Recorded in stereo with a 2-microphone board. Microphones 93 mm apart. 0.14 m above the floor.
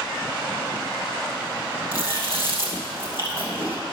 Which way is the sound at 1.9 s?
40° left (ahead or behind).